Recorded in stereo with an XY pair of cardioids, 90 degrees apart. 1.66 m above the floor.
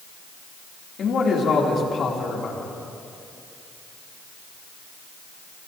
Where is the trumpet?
No trumpet in this recording.